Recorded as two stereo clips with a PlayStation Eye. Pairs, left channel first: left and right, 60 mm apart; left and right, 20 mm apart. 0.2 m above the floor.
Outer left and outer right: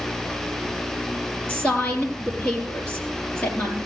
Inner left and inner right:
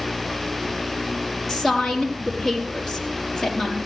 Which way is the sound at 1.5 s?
20° left (ahead or behind).